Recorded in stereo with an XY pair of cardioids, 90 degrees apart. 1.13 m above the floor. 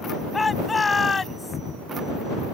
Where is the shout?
25° left; by 1.6 s 40° left.